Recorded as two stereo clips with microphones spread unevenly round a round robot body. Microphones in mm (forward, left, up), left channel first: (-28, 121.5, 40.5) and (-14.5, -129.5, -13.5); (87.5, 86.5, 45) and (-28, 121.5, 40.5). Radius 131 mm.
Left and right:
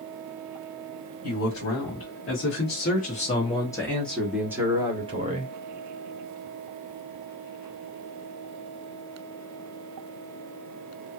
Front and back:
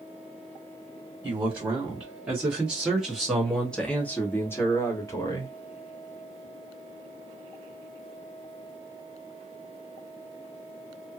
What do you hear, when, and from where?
1.2 s a man speaking: 105° left, 1.8 m; by 5.5 s 65° right, 1.6 m